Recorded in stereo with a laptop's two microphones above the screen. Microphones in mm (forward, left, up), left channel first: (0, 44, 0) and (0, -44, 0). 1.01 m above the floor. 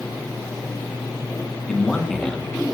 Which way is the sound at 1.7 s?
5° left (ahead or behind).